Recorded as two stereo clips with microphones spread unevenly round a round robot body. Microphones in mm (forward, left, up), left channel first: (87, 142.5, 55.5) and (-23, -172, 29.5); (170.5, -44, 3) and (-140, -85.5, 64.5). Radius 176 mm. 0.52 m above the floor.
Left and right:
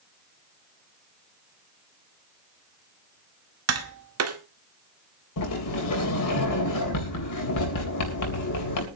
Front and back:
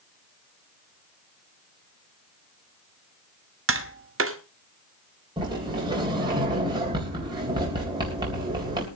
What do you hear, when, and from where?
3.7 s tapping: 125° right, 1.6 m
5.4 s a sliding door: 105° left, 3.5 m